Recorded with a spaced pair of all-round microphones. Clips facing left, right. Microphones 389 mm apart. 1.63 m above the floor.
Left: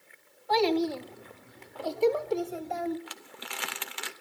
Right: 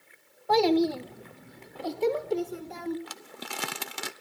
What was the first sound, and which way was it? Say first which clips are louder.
A child speaking: right 3 dB; 60° right (ahead or behind).